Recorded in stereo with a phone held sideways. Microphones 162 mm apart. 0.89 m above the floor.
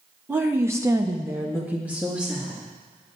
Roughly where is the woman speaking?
Centre.